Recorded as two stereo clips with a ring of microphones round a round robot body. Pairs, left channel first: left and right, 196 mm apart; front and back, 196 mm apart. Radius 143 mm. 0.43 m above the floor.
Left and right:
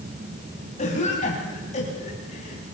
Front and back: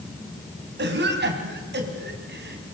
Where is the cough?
155° left, 4.5 m.